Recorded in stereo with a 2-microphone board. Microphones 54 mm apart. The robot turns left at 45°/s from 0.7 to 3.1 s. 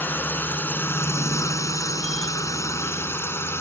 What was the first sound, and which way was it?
A drone, 40° left (ahead or behind).